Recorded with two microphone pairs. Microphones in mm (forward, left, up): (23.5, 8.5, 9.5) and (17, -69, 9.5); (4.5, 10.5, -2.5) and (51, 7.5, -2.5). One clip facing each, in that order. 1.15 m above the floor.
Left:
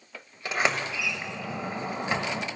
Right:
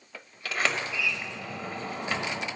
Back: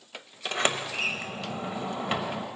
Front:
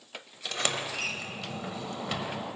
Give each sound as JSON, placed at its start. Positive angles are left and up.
{"t": 0.5, "sound": "a sliding door", "azimuth_deg": 140, "distance_m": 1.0}